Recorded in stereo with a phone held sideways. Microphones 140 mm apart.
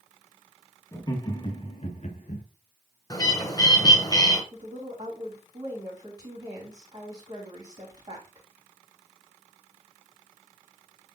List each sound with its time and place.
0.9 s laughter: 25° left (ahead or behind), 1.7 m; by 2.4 s 70° left (ahead or behind), 1.5 m
3.1 s a bird: 30° left (ahead or behind), 1.3 m
4.5 s a woman speaking: 40° right (ahead or behind), 3.5 m